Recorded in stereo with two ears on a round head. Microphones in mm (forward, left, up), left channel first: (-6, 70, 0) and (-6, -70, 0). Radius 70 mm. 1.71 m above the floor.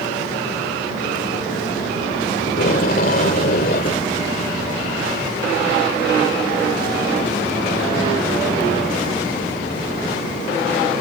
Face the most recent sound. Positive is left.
turn(degrees=55)  # may be behind; listen again after turning